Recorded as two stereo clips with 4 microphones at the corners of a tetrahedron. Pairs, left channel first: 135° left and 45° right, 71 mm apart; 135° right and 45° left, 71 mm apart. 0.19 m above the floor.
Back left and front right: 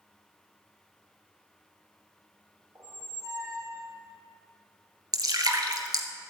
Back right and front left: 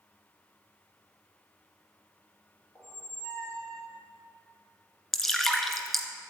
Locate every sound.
2.8 s a squeak: 80° right, 2.5 m
5.1 s dripping: 45° right, 1.4 m